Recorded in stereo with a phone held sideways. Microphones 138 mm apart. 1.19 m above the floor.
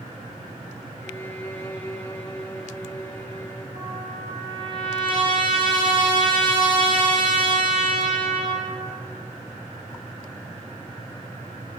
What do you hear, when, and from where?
1.0 s a violin: 15° left (ahead or behind), 3.5 m
3.7 s a trumpet: 35° right (ahead or behind), 9.5 m